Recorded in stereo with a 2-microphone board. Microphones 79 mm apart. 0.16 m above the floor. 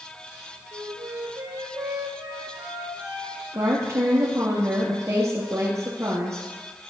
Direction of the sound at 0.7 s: 55° right (ahead or behind).